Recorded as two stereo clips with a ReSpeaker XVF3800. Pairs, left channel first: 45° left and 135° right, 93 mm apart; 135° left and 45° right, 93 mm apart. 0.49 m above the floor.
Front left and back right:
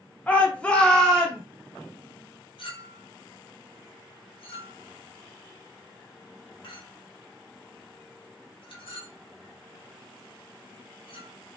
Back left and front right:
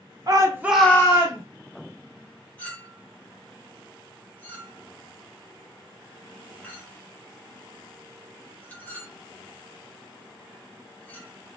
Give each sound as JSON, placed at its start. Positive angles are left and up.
{"t": 0.3, "sound": "a shout", "azimuth_deg": -25, "distance_m": 1.0}
{"t": 2.6, "sound": "a clink", "azimuth_deg": 65, "distance_m": 0.9}